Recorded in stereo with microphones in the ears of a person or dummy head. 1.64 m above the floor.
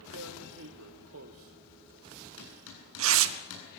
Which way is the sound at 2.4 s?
80° left.